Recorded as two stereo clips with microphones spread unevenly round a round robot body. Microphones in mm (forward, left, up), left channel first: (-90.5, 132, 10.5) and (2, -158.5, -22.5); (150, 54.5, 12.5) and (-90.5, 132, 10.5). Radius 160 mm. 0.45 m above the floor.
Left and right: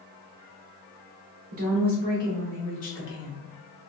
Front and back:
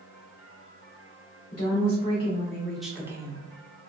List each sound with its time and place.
1.5 s a woman speaking: 65° right, 1.1 m; by 3.4 s 95° left, 1.0 m